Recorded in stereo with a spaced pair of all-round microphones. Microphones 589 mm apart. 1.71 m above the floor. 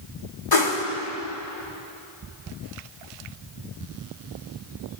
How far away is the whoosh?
About 3 m.